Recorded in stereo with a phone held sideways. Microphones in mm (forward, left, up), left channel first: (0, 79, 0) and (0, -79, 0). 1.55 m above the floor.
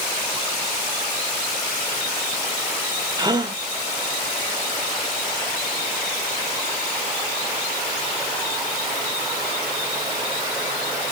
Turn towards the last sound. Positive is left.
turn(degrees=-25)  # may be behind; listen again after turning